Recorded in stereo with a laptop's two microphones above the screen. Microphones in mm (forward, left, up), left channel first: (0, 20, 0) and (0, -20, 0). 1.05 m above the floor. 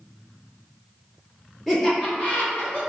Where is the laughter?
5° left (ahead or behind), 0.7 m; by 2.8 s 45° left (ahead or behind), 1.1 m.